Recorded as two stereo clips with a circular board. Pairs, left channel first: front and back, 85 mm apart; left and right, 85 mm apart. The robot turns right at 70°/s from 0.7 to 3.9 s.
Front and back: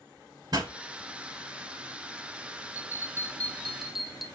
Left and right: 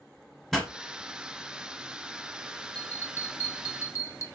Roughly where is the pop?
Behind.